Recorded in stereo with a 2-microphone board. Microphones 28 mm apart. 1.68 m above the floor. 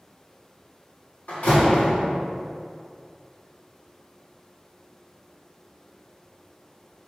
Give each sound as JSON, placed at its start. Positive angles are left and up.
{"t": 1.3, "sound": "a door slam", "side_deg": 65, "distance_m": 1.2}